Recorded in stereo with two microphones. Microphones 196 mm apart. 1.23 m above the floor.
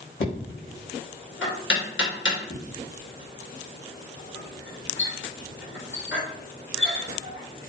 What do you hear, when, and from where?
0.2 s knocking: 75° left (ahead or behind), 0.8 m